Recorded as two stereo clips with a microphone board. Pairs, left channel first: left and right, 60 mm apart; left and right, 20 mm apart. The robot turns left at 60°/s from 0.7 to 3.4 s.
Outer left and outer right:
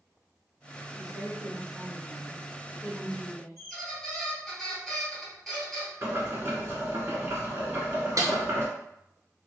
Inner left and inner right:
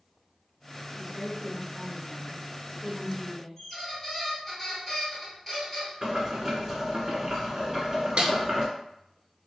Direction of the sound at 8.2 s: 60° right (ahead or behind).